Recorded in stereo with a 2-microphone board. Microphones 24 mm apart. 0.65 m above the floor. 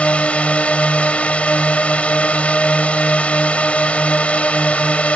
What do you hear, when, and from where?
0.0 s a drone: 65° left (ahead or behind)